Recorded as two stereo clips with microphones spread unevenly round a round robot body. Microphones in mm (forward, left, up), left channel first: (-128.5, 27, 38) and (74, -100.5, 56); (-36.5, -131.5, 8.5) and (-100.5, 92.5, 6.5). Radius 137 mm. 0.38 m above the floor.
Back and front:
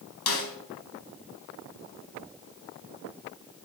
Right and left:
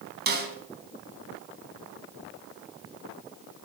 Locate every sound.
0.3 s a snare drum: 145° left, 3.5 m